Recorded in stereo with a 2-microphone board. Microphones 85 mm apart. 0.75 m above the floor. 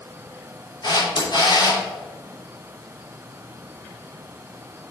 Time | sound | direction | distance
0.8 | a camera shutter | 55° left (ahead or behind) | 2.5 m